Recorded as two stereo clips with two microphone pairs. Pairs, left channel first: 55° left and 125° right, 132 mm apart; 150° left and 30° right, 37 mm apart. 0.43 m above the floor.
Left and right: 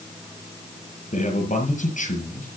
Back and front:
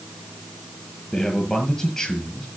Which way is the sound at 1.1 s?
80° left.